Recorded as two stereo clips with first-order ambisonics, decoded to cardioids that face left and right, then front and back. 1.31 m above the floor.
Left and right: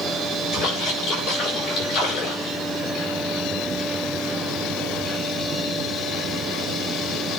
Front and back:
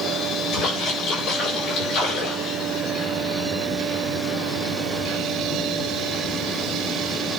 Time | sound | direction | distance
0.5 | a splash | 40° left | 5.5 m